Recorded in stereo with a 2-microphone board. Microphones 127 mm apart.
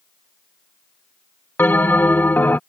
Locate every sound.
1.6 s a bell: 15° left (ahead or behind)